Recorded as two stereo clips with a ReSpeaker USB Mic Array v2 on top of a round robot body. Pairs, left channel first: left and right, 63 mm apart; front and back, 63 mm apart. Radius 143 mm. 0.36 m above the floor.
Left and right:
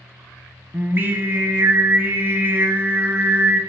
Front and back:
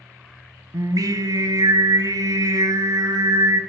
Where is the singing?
150° right, 1.0 m.